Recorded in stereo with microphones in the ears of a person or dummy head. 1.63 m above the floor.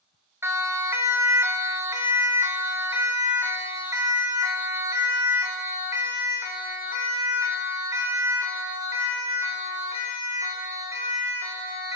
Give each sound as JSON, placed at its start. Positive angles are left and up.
{"t": 0.4, "sound": "a siren", "side_deg": -10, "distance_m": 2.5}